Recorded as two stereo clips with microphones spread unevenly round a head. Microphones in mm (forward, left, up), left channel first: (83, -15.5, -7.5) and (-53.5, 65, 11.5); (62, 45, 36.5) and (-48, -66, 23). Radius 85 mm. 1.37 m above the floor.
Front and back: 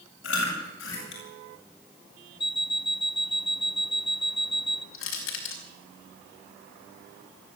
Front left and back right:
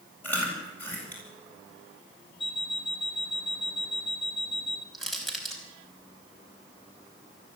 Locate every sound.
0.2 s chewing: 35° right, 8.5 m
2.4 s an alarm clock: 20° left, 1.0 m
4.9 s crushing: 45° right, 5 m